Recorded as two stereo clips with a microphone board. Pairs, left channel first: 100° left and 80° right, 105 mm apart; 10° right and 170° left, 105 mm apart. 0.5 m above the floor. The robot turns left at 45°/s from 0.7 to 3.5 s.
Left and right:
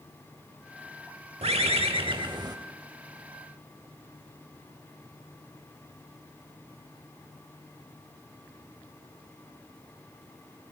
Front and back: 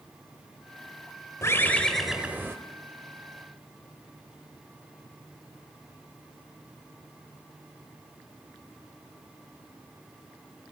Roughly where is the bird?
Right.